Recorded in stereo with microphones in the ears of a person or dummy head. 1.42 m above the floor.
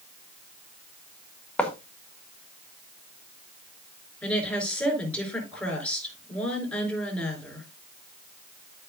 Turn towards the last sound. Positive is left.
turn(degrees=5)  # may be behind; listen again after turning